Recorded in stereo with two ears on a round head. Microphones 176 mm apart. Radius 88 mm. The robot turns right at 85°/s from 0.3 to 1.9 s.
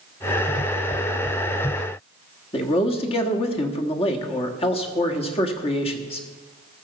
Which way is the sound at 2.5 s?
30° left (ahead or behind).